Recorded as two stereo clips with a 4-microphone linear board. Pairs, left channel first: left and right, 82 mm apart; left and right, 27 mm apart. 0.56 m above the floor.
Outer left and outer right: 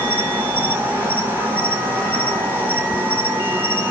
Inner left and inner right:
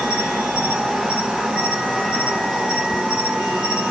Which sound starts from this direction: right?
An insect, at 0.0 s.